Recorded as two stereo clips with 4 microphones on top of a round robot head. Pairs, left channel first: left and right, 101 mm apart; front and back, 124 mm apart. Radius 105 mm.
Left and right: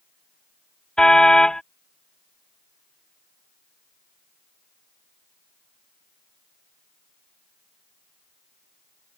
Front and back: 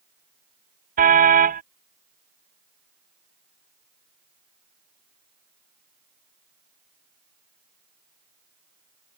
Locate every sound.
1.0 s a car horn: 175° left